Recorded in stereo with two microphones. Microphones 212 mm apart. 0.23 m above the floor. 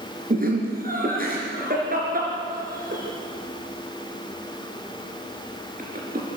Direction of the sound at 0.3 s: 45° right (ahead or behind).